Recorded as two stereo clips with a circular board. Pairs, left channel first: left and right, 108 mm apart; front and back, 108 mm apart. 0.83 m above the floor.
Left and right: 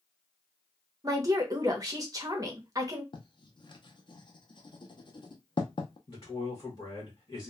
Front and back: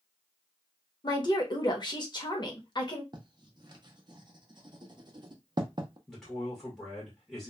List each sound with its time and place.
1.0 s a woman speaking: 40° right, 0.8 m
3.1 s writing: 135° left, 0.5 m
6.1 s a man speaking: 80° left, 1.1 m